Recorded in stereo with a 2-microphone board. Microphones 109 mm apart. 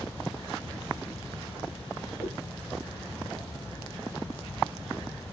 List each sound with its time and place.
2.2 s a whoosh: 75° left (ahead or behind), 3.5 m